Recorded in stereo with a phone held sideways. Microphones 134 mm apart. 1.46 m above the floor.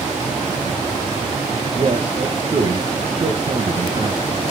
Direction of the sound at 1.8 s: 45° right (ahead or behind).